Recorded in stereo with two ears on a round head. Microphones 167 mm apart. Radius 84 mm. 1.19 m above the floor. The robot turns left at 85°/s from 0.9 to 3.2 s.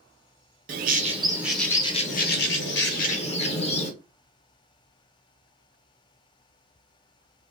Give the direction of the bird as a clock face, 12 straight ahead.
4 o'clock.